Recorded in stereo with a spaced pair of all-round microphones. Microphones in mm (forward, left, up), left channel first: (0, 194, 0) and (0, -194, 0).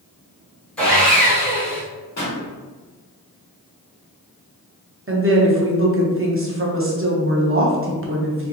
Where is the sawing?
5° left (ahead or behind), 1.2 m.